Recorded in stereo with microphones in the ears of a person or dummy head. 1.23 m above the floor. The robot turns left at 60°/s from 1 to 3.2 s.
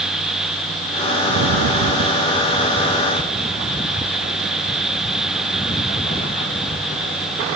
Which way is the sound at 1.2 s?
85° right.